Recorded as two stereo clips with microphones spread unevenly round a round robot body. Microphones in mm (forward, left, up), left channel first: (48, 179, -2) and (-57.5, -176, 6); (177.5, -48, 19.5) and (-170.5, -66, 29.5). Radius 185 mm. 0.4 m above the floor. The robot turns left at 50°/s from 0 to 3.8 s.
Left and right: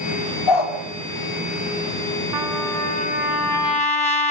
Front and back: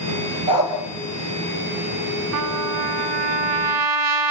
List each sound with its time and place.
0.5 s a dog barking: 110° left, 4.5 m; by 0.8 s 95° left, 4.5 m
2.3 s a trumpet: 140° right, 1.5 m; by 4.3 s 145° left, 1.5 m